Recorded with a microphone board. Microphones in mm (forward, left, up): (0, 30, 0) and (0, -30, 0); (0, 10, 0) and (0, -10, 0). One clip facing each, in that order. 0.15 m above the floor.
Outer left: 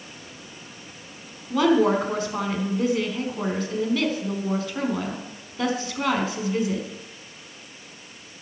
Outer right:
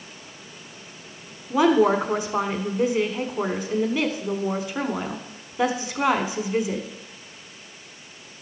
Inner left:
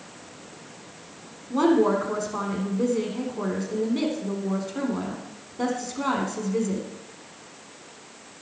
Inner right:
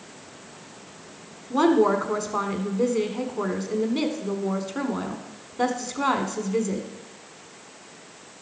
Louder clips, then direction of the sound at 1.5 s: Outer right 1 dB, inner right 1 dB; 20° right (ahead or behind).